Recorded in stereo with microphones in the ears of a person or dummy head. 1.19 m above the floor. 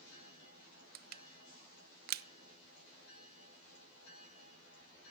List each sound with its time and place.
0.9 s crushing: 50° right (ahead or behind), 0.6 m